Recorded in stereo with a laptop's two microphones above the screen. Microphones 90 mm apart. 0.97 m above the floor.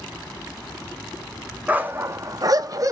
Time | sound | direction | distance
1.7 | a dog barking | 20° right (ahead or behind) | 0.6 m